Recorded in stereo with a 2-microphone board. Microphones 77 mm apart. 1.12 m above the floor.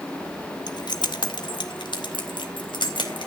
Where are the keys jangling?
60° left (ahead or behind), 1.3 m; by 3.3 s 85° left, 4 m.